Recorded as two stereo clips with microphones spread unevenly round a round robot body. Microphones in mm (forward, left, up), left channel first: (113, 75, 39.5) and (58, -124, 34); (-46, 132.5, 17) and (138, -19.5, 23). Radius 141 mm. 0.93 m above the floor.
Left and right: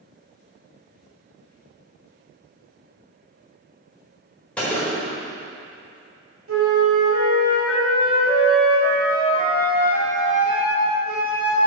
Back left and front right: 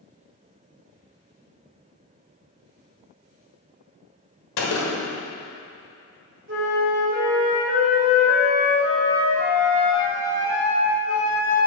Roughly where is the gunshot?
Behind.